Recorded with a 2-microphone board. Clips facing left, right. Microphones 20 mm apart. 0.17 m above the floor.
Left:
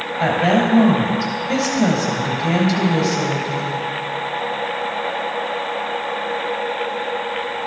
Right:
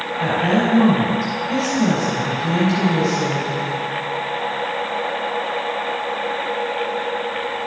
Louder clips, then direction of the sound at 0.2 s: Left 2 dB; 40° left (ahead or behind).